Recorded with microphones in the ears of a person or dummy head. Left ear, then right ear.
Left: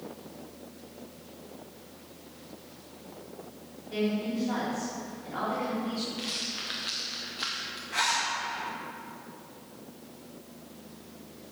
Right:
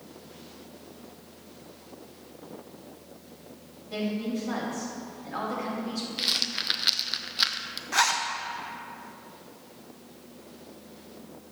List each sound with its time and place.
3.9 s a woman speaking: 45° right (ahead or behind), 2.5 m
6.2 s a rattle: 30° right (ahead or behind), 0.5 m
7.9 s a zipper: 45° right (ahead or behind), 0.9 m